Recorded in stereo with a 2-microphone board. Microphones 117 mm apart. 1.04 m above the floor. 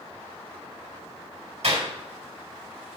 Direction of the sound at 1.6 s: 70° right (ahead or behind).